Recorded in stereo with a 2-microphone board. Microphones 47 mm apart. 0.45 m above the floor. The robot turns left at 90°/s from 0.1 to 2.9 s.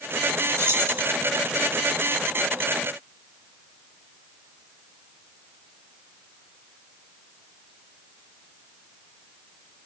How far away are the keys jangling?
About 1.1 m.